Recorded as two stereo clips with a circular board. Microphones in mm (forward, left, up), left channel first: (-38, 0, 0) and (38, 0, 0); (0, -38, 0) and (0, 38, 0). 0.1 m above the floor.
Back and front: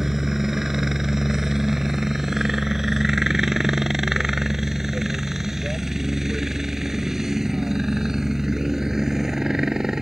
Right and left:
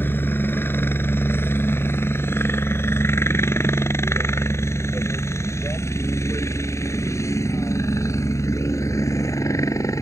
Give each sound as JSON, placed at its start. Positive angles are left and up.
{"t": 0.0, "sound": "a helicopter", "azimuth_deg": -80}